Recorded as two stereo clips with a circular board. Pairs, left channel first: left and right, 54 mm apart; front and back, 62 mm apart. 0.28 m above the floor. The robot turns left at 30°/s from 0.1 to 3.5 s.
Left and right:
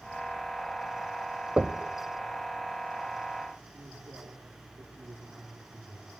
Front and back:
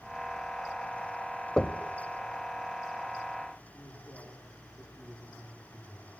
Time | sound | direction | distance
1.6 | knocking | 55° right | 0.9 m
3.7 | a man speaking | 75° right | 7.5 m